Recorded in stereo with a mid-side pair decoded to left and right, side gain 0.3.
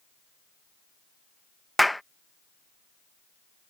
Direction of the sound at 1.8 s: 5° left.